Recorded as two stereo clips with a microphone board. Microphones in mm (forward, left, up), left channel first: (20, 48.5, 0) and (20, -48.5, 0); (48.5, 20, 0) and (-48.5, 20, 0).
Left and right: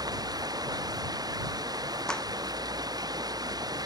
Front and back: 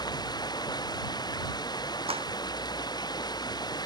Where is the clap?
170° left.